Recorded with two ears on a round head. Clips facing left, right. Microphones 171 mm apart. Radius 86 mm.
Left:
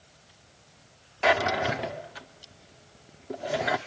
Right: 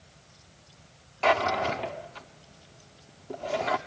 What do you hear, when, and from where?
1.2 s a drawer: 10° left (ahead or behind), 0.7 m